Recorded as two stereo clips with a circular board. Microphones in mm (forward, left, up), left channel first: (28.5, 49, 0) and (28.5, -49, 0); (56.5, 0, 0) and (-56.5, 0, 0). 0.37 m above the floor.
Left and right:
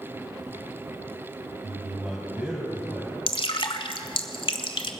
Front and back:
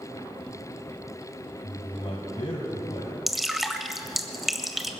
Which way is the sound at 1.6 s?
20° right.